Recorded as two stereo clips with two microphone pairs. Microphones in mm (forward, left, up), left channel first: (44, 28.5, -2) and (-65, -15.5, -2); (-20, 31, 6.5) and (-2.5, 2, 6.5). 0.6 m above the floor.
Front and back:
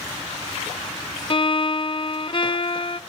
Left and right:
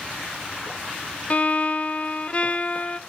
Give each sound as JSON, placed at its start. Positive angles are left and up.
{"t": 1.3, "sound": "a violin", "azimuth_deg": 70, "distance_m": 0.6}